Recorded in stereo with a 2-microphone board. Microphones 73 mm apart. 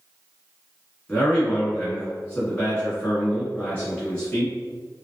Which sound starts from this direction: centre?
A man speaking, at 1.1 s.